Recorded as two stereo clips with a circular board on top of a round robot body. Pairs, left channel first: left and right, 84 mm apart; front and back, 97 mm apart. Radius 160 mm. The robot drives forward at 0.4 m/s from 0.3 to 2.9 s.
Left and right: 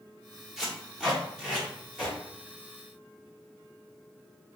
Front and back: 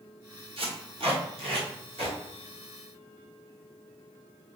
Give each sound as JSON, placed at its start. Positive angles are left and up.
{"t": 0.6, "sound": "tape being pulled", "azimuth_deg": -175, "distance_m": 1.9}